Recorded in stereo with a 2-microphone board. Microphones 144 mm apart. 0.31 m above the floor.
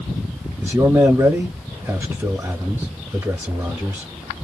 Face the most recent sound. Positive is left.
turn(degrees=-15)  # may be behind; listen again after turning